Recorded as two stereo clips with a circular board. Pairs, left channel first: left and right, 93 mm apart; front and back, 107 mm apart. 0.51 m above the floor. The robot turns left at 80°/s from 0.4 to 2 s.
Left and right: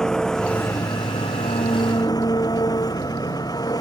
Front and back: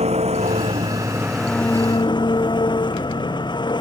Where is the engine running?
175° left; by 3.8 s 45° left.